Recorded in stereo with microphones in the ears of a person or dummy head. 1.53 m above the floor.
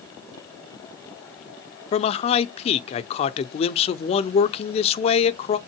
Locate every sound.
1.9 s a man speaking: 35° left (ahead or behind), 0.8 m